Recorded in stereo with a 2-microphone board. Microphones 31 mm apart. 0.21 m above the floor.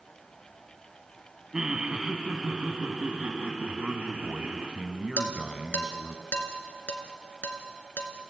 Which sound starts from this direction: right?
A man speaking, at 3.6 s.